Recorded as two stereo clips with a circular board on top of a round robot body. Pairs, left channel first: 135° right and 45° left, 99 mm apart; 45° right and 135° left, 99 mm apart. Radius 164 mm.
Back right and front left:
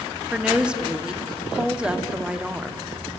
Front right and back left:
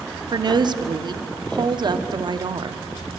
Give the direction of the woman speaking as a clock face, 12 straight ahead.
8 o'clock.